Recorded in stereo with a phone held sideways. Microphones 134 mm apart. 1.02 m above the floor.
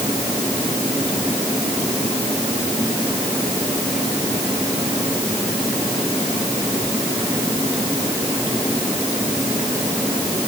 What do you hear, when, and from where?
Only background noise.